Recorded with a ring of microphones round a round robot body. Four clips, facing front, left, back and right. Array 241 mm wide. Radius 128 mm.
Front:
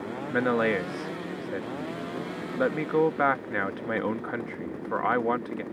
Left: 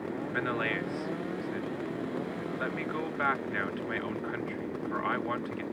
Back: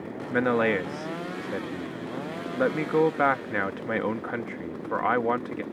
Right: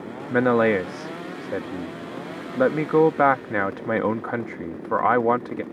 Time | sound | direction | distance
0.3 | a man speaking | 90° right | ?